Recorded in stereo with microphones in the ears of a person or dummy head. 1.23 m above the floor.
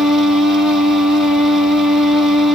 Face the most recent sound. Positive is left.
turn(degrees=-5)  # may be behind; listen again after turning